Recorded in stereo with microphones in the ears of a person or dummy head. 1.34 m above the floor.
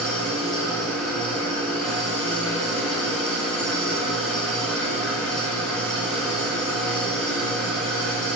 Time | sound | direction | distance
0.0 | an engine running | 5° left (ahead or behind) | 8 m